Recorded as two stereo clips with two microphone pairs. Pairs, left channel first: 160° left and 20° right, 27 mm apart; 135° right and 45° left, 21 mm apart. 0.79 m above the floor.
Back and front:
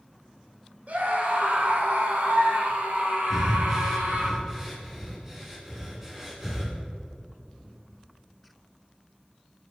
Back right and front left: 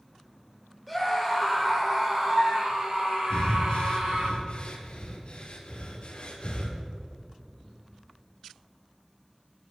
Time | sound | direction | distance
0.9 | a scream | 45° right | 3.5 m
3.3 | breathing | 95° right | 3.5 m